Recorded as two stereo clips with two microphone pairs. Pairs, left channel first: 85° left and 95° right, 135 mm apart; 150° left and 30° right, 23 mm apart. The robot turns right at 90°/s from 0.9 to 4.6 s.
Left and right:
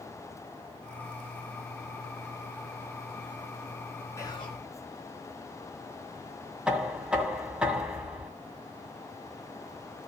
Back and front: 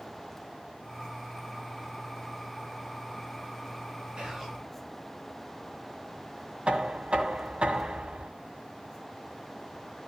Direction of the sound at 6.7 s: 15° right.